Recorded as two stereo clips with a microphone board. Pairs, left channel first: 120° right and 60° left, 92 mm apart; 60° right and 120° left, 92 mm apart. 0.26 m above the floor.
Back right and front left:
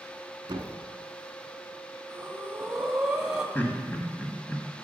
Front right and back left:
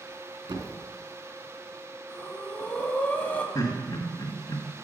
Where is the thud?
90° left, 0.9 m.